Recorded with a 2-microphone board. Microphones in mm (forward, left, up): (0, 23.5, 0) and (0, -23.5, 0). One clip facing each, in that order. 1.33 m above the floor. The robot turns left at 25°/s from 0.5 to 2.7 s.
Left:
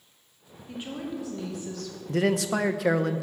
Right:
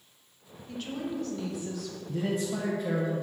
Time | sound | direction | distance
0.7 | a woman speaking | 20° left | 1.6 m
2.1 | a man speaking | 70° left (ahead or behind) | 0.5 m